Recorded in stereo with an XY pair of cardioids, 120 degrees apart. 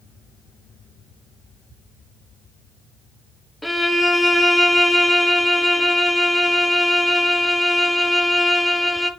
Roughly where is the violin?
Ahead.